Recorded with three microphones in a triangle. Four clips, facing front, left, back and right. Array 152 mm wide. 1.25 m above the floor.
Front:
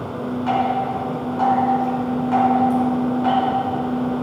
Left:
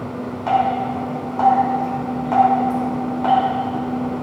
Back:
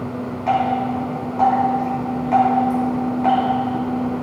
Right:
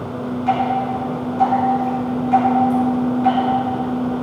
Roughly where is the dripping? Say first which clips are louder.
Left 1 dB, back 2 dB; left.